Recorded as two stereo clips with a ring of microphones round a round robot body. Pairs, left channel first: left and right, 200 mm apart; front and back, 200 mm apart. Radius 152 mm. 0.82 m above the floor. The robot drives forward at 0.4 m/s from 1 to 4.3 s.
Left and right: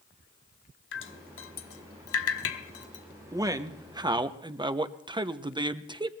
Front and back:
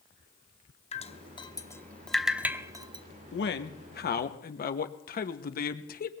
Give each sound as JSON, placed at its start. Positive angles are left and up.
{"t": 0.9, "sound": "dripping", "azimuth_deg": 60, "distance_m": 1.0}
{"t": 3.3, "sound": "a man speaking", "azimuth_deg": -20, "distance_m": 1.3}